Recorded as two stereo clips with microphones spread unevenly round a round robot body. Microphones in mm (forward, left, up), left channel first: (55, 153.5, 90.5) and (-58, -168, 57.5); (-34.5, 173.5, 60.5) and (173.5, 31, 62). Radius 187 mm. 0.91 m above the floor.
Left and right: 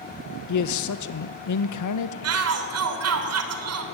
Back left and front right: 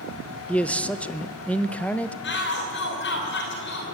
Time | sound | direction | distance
0.5 | a man speaking | 60° left | 0.9 m
2.2 | a shout | 155° right | 3 m